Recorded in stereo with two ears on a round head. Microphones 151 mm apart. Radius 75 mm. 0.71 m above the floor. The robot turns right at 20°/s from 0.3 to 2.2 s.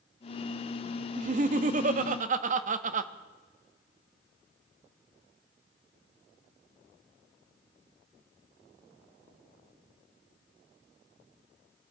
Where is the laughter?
45° right (ahead or behind), 0.6 m.